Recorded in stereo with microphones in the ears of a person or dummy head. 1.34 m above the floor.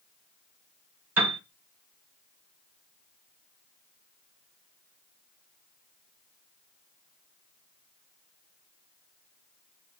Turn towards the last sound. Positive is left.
turn(degrees=-10)  # may be behind; listen again after turning